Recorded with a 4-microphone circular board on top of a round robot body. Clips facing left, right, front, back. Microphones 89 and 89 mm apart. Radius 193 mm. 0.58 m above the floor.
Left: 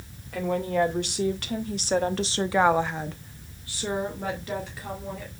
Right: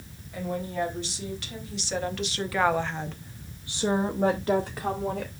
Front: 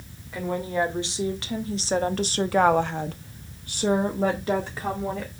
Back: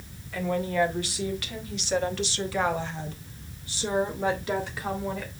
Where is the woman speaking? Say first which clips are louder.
Left 6 dB, even; 70° left, 2.5 m; by 5.3 s 60° right, 2.5 m.